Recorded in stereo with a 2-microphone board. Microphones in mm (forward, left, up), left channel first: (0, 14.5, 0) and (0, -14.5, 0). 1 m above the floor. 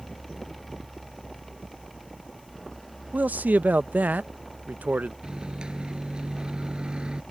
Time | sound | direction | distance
3.1 | a man speaking | 65° right (ahead or behind) | ?
5.2 | a microwave | 30° right (ahead or behind) | ?